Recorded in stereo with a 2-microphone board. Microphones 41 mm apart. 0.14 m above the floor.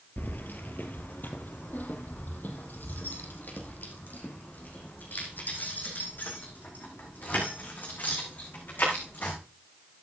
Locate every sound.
0.2 s keys jangling: 50° left (ahead or behind), 2 m; by 9.3 s 45° left (ahead or behind), 8.5 m